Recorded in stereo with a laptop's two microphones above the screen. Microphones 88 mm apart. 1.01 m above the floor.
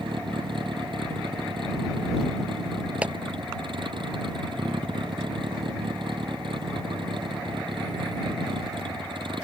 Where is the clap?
15° right (ahead or behind).